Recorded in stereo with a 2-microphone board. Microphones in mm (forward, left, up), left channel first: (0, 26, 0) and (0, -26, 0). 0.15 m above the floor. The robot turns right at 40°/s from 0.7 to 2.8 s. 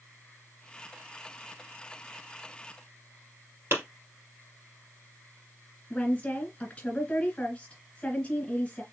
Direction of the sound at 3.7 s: 50° right (ahead or behind).